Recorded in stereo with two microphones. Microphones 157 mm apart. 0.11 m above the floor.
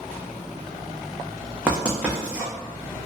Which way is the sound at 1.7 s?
10° right (ahead or behind).